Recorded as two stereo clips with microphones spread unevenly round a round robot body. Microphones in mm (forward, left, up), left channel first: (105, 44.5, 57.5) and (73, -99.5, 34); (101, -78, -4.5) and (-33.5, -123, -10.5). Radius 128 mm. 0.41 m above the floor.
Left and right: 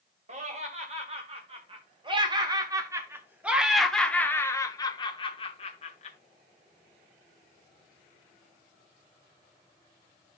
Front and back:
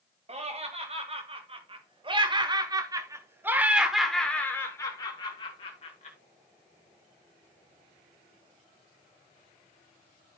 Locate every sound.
0.3 s laughter: 130° right, 2.5 m; by 6.2 s 45° left, 1.6 m